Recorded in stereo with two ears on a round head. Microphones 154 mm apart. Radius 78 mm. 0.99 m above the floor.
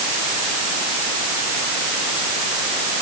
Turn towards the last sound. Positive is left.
No sound to turn to.